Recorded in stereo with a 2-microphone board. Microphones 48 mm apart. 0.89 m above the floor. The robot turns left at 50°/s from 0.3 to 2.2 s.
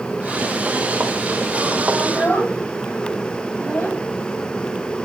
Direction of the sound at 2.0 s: 30° left (ahead or behind).